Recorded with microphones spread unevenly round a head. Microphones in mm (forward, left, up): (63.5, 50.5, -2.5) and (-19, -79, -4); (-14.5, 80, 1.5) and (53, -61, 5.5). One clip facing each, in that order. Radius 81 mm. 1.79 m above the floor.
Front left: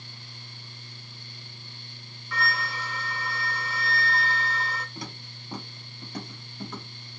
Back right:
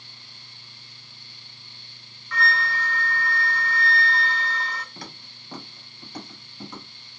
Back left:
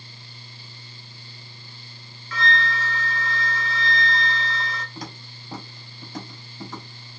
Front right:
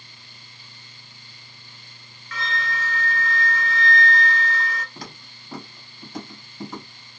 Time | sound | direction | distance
2.3 | a flute | 135° left | 0.7 m
5.0 | footsteps | 80° left | 1.8 m